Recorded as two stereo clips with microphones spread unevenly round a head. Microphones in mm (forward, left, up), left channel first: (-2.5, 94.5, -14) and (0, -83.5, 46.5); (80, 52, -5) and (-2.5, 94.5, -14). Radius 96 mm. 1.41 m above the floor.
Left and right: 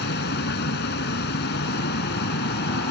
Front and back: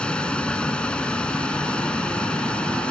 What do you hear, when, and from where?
0.0 s a vehicle: 50° left